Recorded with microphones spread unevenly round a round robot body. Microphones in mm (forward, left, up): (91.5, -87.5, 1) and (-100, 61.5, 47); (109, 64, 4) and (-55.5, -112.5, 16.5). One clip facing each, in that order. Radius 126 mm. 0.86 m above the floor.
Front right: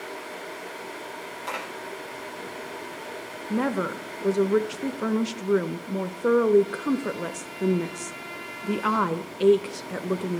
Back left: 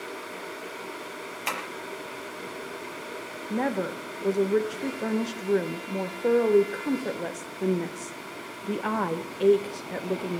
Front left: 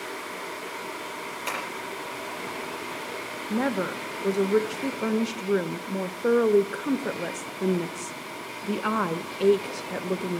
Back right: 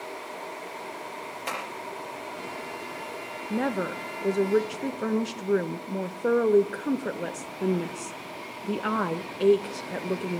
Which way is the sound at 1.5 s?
130° left.